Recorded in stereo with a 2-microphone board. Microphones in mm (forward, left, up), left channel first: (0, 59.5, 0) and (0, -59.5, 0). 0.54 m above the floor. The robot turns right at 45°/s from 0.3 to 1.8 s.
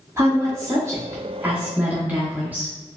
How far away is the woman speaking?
About 0.8 m.